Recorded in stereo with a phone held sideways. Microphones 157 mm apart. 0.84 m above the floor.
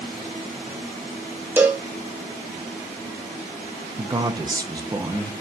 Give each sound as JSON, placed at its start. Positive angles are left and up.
{"t": 1.6, "sound": "a cowbell", "side_deg": -10, "distance_m": 0.6}
{"t": 4.0, "sound": "a man speaking", "side_deg": -25, "distance_m": 0.6}